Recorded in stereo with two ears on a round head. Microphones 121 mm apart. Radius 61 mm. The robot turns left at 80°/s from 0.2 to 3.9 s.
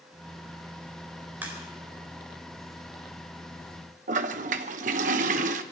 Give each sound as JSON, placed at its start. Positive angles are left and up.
{"t": 1.4, "sound": "a crack", "side_deg": -15, "distance_m": 4.0}
{"t": 4.1, "sound": "a toilet flushing", "side_deg": -60, "distance_m": 1.0}